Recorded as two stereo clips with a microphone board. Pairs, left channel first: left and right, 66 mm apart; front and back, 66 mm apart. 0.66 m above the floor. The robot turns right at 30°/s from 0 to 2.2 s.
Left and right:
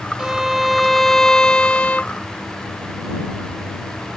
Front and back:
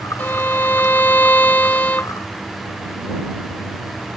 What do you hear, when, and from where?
0.2 s a violin: 20° right; by 2.1 s 40° left